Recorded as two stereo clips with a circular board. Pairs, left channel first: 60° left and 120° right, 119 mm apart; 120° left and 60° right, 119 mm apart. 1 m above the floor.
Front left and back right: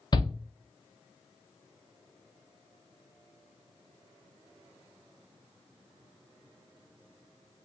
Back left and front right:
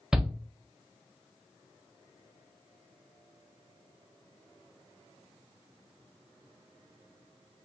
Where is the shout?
25° left, 0.8 m.